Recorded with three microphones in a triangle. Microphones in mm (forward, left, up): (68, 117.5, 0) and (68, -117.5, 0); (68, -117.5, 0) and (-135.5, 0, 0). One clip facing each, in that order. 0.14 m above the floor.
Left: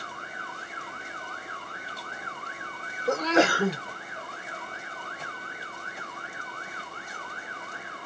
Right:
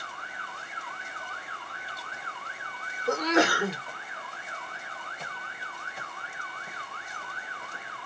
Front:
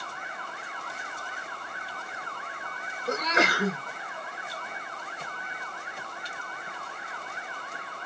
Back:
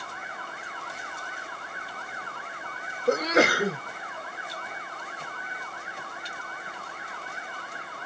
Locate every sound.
3.1 s a sneeze: 150° left, 2.5 m